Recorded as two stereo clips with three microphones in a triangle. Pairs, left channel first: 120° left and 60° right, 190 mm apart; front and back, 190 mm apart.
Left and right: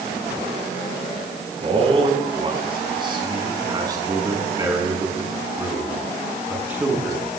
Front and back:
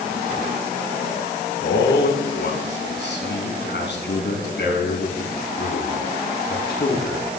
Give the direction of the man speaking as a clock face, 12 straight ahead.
12 o'clock.